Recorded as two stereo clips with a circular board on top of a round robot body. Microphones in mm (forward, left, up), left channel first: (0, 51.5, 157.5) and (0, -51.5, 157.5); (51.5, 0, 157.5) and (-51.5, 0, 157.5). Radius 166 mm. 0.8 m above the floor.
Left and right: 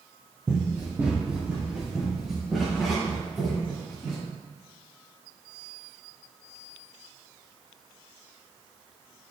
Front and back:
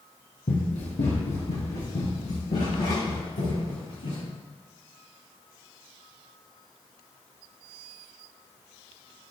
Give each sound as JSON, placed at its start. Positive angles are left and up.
{"t": 0.5, "sound": "running footsteps", "azimuth_deg": -25, "distance_m": 1.9}